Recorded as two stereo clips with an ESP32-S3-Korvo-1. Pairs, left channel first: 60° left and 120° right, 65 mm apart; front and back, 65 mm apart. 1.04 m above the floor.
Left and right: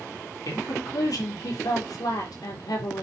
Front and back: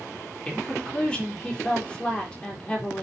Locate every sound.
0.5 s a woman speaking: 75° left, 3.5 m